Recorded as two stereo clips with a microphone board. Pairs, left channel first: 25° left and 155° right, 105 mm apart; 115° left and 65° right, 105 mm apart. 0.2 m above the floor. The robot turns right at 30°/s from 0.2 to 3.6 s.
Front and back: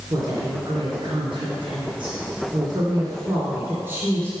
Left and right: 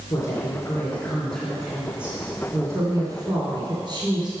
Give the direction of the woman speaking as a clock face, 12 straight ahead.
7 o'clock.